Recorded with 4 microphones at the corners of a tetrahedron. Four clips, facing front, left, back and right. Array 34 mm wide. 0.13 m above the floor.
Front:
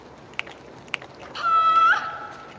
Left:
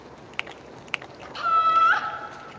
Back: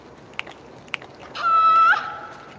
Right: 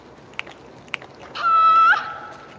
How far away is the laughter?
About 1.0 m.